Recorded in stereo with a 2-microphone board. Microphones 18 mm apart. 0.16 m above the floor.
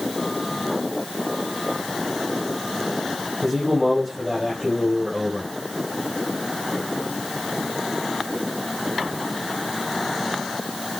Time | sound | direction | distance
3.4 | a man speaking | 10° right (ahead or behind) | 3.5 m